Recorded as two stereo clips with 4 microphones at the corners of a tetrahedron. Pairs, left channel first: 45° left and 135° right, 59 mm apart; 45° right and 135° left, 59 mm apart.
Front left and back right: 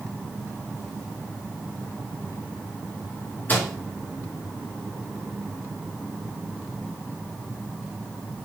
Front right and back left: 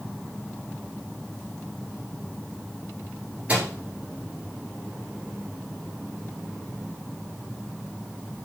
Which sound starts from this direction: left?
A microwave, at 3.5 s.